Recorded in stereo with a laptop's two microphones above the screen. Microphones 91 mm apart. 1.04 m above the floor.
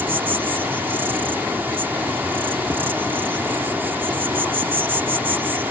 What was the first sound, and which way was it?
An insect, 25° right (ahead or behind).